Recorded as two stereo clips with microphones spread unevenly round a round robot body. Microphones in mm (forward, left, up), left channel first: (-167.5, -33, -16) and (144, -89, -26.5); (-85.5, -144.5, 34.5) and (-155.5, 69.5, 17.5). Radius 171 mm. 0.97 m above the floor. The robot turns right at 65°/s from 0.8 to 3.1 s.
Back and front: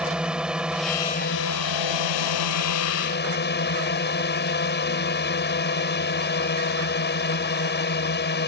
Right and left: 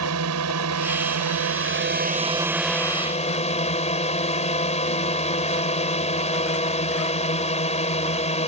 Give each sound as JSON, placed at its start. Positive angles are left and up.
{"t": 0.0, "sound": "a drone", "azimuth_deg": 75}